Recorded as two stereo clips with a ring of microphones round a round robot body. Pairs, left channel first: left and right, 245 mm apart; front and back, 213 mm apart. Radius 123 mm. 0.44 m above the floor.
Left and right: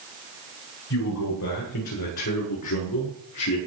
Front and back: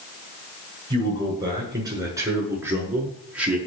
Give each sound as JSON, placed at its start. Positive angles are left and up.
{"t": 0.9, "sound": "a man speaking", "azimuth_deg": 110, "distance_m": 7.0}